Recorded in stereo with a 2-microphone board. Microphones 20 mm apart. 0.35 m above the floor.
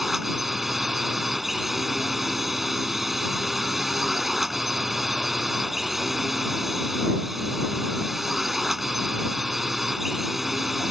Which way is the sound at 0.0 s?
10° right (ahead or behind).